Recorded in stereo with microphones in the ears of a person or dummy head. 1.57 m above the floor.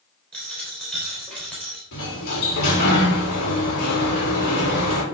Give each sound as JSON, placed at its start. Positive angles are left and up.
{"t": 0.3, "sound": "a dropped coin", "side_deg": 5, "distance_m": 3.5}
{"t": 1.9, "sound": "a sliding door", "side_deg": 55, "distance_m": 3.0}